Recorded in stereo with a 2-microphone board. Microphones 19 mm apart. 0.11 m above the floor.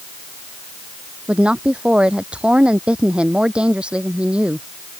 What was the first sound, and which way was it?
A woman speaking, 65° right (ahead or behind).